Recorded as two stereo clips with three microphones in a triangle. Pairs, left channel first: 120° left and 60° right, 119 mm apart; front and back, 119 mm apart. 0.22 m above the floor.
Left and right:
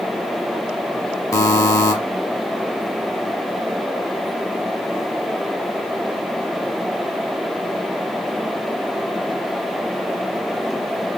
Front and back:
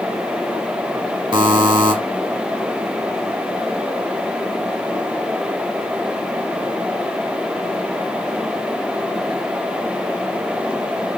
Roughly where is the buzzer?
Behind.